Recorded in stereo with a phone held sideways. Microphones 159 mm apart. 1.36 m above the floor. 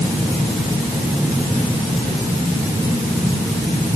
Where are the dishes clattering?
I don't hear dishes clattering.